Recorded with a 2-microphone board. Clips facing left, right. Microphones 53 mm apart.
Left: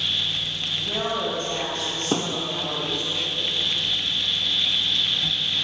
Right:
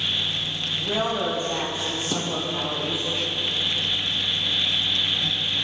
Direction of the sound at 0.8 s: 15° right (ahead or behind).